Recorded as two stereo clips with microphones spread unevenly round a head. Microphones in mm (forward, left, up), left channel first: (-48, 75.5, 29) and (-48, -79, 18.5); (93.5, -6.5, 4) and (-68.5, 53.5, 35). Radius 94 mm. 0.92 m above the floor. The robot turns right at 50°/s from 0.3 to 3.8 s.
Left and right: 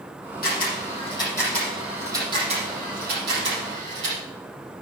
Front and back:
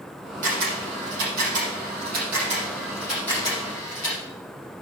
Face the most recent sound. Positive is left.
turn(degrees=-75)